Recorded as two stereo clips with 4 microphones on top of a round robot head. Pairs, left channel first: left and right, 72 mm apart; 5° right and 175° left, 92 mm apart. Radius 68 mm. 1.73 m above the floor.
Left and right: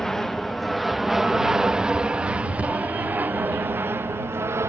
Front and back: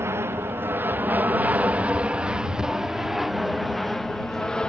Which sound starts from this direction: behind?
An aircraft, at 0.0 s.